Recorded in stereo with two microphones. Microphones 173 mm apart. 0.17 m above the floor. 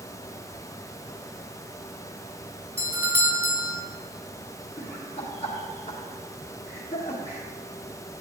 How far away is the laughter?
About 2.5 m.